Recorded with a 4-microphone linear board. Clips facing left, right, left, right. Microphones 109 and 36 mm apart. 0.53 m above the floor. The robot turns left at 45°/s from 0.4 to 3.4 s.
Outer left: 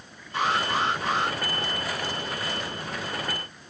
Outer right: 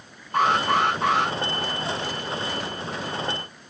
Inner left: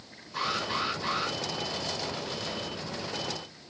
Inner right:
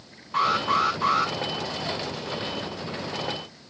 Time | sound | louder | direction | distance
0.3 | an alarm | outer right 5 dB, inner right 8 dB | 55° right | 6 m